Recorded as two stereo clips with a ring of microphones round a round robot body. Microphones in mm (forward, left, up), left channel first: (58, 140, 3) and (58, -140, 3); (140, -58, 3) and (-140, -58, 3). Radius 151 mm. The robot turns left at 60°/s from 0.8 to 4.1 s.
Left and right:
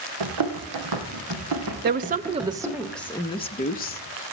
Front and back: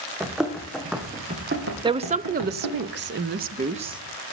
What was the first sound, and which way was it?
Running footsteps, 95° right.